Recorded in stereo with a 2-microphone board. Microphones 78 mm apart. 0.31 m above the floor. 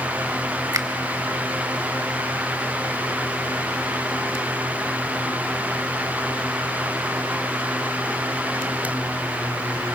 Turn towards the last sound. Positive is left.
turn(degrees=-45)  # may be behind; listen again after turning